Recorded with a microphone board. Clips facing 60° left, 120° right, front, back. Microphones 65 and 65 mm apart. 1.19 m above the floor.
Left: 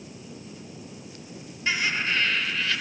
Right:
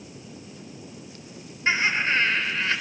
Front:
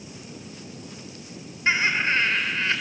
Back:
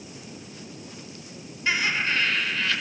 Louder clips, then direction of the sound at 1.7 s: Right 3 dB, front 3 dB; 60° right.